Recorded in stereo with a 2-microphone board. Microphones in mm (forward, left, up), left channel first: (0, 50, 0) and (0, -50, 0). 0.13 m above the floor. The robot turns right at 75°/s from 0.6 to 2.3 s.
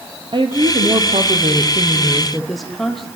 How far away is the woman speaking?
About 4 m.